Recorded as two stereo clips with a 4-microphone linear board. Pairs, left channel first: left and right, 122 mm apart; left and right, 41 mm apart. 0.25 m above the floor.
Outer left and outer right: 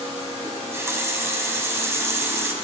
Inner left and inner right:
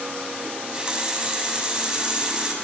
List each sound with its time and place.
0.4 s a running tap: 25° right (ahead or behind), 1.1 m